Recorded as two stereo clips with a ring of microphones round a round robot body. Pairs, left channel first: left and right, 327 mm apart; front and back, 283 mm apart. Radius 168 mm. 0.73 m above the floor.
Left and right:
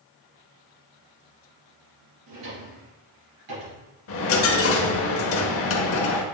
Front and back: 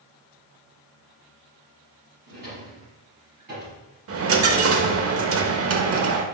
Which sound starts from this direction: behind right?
A drawer, at 2.3 s.